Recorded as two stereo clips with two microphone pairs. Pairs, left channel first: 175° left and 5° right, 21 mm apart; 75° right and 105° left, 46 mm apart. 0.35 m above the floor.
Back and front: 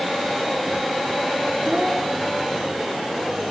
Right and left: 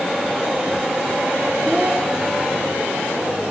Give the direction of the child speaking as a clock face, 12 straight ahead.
1 o'clock.